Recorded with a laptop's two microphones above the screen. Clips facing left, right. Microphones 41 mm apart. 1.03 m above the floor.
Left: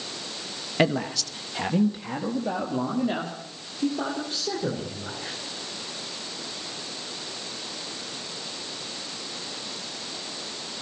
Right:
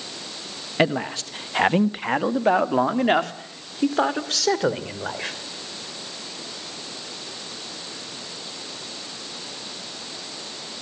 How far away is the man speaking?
About 0.9 m.